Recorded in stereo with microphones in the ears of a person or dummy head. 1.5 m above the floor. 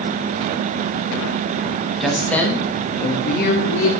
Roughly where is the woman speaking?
Centre.